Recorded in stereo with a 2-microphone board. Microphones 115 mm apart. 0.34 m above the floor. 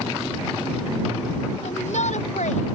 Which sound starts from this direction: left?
A shout, at 1.6 s.